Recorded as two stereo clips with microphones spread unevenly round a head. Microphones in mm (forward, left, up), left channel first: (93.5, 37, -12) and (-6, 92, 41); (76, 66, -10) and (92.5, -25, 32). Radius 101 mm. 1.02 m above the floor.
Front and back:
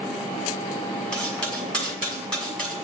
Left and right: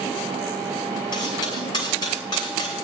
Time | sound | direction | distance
1.1 | cutlery clinking | 55° left | 6.5 m